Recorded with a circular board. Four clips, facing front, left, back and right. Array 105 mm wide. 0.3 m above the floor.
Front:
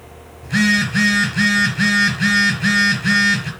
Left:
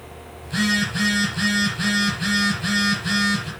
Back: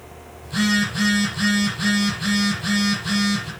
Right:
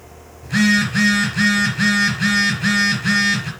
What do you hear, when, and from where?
0.4 s a phone buzzing: 35° right, 4.5 m